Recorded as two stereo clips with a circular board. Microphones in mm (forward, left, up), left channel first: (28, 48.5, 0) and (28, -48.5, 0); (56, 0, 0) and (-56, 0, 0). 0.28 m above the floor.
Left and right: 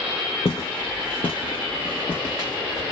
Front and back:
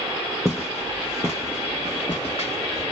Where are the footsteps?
90° left, 0.9 m; by 2.8 s 25° left, 1.3 m.